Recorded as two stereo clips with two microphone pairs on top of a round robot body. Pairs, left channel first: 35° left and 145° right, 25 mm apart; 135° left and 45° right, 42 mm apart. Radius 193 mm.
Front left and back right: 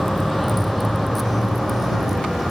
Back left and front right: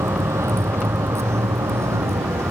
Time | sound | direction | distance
0.0 | a vehicle | 55° right | ?